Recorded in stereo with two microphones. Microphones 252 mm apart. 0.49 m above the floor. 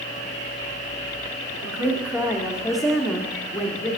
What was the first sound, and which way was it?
A woman speaking, 10° right (ahead or behind).